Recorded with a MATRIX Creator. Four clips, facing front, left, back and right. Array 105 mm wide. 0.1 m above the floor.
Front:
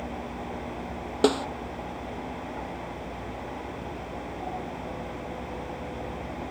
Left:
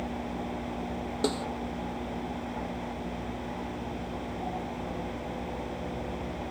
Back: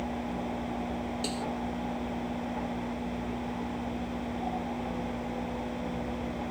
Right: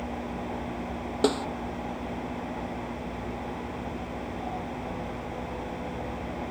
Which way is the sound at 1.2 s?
25° right.